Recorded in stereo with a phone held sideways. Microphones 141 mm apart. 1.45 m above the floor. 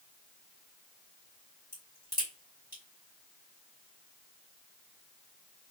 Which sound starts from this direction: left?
A crack, at 1.7 s.